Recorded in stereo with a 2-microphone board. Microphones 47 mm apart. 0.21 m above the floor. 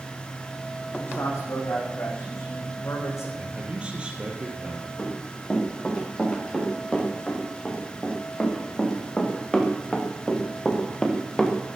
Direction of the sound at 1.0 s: 65° left (ahead or behind).